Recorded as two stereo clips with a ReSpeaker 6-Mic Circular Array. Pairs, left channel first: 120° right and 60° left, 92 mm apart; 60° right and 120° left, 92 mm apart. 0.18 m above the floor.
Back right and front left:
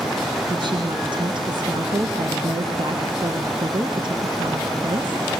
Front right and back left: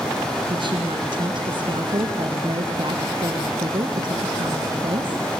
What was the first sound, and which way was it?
A woman speaking, 85° left.